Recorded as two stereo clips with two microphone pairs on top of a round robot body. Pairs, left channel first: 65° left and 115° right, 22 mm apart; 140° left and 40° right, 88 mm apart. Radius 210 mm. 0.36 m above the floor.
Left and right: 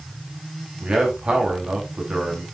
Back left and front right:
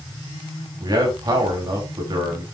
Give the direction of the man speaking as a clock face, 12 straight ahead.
3 o'clock.